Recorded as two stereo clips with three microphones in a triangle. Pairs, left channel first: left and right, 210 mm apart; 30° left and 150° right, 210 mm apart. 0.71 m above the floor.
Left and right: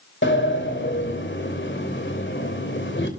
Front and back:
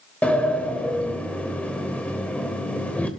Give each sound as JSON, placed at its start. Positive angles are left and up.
{"t": 0.2, "sound": "a sliding door", "azimuth_deg": 115, "distance_m": 3.0}